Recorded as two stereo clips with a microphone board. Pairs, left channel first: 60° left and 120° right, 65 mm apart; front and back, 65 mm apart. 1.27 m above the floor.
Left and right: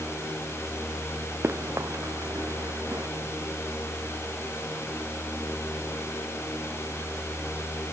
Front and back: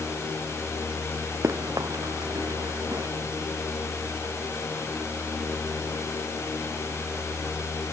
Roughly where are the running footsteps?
Behind.